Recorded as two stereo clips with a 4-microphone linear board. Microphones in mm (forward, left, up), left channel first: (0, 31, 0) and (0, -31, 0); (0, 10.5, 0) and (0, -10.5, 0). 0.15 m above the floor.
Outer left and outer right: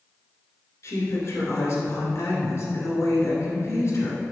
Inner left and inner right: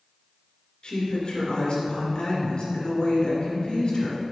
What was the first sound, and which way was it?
A woman speaking, 45° left (ahead or behind).